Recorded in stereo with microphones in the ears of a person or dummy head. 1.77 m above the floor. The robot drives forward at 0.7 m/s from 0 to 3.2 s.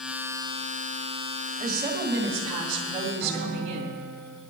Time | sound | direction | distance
1.6 | a woman speaking | 30° right (ahead or behind) | 5 m
3.2 | a guitar | 10° left (ahead or behind) | 4 m